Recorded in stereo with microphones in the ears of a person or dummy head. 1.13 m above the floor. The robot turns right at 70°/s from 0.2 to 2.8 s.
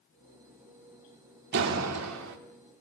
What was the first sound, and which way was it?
A door slam, 120° right.